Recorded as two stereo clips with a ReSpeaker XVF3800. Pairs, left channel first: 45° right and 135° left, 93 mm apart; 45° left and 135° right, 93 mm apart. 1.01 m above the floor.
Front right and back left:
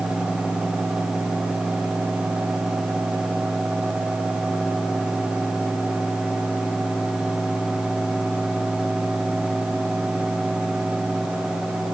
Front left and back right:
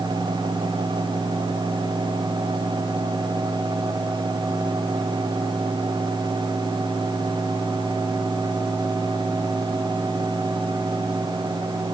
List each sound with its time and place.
Only background noise.